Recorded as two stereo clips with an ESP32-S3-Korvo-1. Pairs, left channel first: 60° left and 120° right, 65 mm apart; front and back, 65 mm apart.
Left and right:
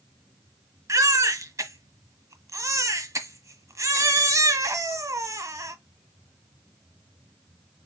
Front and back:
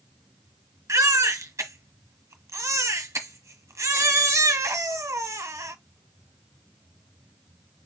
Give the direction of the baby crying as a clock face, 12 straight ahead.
5 o'clock.